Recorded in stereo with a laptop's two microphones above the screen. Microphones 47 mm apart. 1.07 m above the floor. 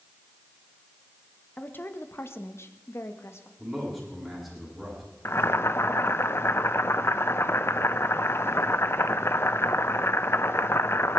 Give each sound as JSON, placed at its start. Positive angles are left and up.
{"t": 1.6, "sound": "a woman speaking", "side_deg": 40, "distance_m": 1.6}
{"t": 3.6, "sound": "a man speaking", "side_deg": -5, "distance_m": 10.0}
{"t": 5.2, "sound": "boiling", "side_deg": 60, "distance_m": 0.9}